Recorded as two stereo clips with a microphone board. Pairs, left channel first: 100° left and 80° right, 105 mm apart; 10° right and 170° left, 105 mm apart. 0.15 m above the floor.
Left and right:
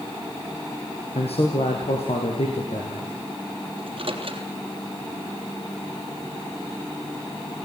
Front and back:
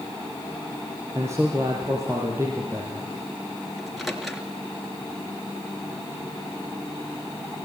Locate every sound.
1.1 s a man speaking: 105° left, 4.5 m
3.8 s a microwave: 100° right, 3 m